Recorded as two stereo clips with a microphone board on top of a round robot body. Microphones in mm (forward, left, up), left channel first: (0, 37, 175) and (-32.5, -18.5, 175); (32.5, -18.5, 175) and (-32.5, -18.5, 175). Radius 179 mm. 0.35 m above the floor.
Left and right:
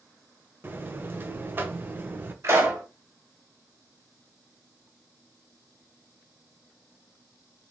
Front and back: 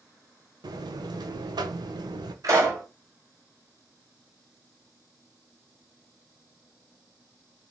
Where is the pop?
155° right, 2.5 m.